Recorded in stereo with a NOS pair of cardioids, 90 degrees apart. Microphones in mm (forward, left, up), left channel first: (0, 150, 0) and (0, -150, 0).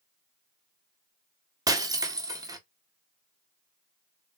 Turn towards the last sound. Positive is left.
turn(degrees=-15)